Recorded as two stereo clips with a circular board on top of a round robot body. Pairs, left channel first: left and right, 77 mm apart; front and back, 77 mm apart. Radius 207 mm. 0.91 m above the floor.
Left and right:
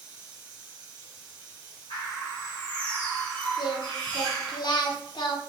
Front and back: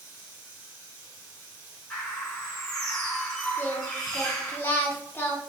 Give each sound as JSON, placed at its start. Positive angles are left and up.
{"t": 0.0, "sound": "running water", "azimuth_deg": -140, "distance_m": 1.6}
{"t": 1.9, "sound": "a bird", "azimuth_deg": 80, "distance_m": 0.7}
{"t": 3.6, "sound": "singing", "azimuth_deg": 65, "distance_m": 0.5}